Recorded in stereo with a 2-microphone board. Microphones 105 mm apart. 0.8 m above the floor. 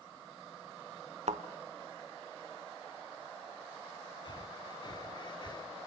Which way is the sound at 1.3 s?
80° right.